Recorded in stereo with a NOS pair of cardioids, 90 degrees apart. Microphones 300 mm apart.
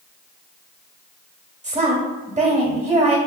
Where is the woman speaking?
25° right, 1.2 m.